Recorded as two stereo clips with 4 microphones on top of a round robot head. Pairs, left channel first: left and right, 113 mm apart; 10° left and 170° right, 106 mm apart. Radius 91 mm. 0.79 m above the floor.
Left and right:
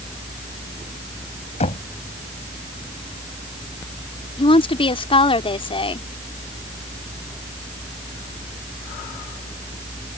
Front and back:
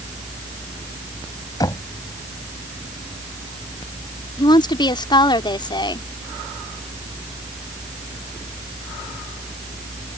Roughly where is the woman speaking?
Ahead left.